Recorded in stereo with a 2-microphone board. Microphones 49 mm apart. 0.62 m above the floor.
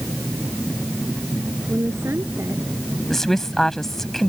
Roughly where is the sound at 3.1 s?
Centre.